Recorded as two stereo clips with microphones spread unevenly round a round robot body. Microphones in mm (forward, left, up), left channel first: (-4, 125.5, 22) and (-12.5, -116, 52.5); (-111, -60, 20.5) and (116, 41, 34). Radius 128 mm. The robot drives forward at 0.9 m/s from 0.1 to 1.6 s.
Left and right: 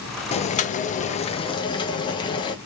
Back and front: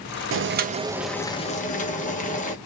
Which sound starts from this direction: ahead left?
Boiling, at 0.3 s.